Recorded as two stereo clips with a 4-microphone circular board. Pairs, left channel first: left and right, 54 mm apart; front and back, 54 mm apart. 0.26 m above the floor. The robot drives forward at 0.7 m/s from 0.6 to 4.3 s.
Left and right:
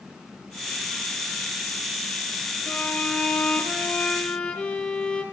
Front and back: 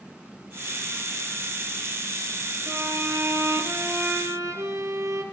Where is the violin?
150° left, 2.5 m; by 5.2 s 160° left, 3.5 m.